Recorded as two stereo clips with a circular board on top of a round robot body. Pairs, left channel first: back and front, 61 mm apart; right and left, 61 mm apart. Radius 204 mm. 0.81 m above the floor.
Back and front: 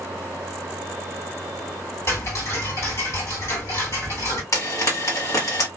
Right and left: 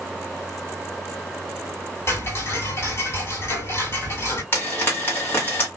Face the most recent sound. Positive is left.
turn(degrees=-145)